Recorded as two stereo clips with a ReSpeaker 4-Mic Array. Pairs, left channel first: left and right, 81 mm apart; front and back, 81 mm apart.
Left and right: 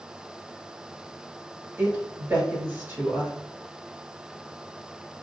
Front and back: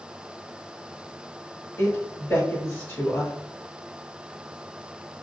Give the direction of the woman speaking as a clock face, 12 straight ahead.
1 o'clock.